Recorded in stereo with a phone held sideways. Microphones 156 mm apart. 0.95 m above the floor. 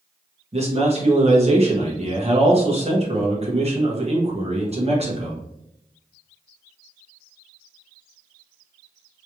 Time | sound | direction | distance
0.5 | a man speaking | 40° right (ahead or behind) | 1.3 m